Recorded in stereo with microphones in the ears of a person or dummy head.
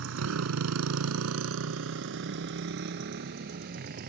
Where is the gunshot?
I don't hear a gunshot.